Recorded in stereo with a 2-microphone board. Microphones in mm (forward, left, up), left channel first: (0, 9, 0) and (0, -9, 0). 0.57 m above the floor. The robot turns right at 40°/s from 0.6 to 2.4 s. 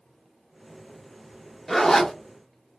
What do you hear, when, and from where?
1.7 s a zipper: 10° left (ahead or behind), 0.8 m; by 2.1 s 25° left (ahead or behind), 0.8 m